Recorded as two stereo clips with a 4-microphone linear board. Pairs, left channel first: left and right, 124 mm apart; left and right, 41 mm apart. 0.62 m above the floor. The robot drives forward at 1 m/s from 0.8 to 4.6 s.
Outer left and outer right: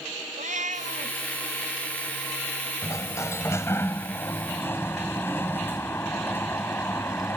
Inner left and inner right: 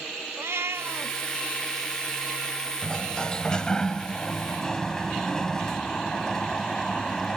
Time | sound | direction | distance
0.4 | a cat meowing | 80° right | ?
2.8 | a sliding door | 25° left (ahead or behind) | ?